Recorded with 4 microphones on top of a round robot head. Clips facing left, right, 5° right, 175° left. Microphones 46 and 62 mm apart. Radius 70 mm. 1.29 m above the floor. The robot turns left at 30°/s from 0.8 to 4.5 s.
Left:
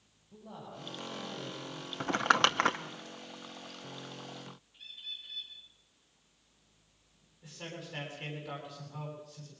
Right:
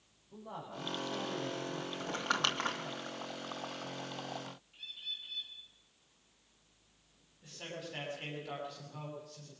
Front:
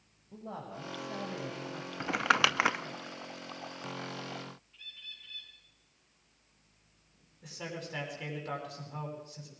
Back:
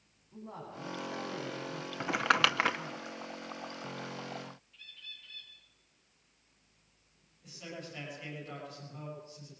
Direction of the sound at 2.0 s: 95° left.